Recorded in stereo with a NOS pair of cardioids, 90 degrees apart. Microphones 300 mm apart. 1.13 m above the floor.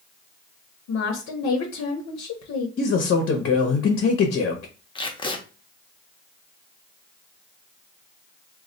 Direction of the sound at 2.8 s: 45° left.